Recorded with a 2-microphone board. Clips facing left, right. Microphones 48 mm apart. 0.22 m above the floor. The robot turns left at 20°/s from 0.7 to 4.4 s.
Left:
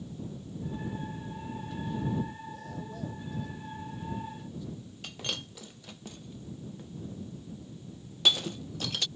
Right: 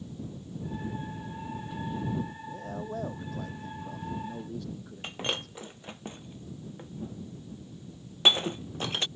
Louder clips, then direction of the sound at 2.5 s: Right 4 dB; 40° right.